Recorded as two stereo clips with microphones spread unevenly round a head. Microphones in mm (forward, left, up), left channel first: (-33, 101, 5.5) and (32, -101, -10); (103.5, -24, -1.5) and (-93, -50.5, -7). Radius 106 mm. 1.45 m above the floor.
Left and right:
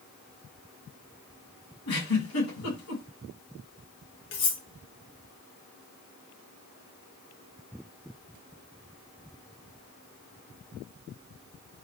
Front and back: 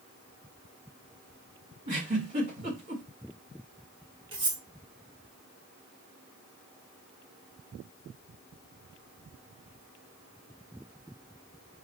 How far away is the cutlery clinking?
About 1.3 m.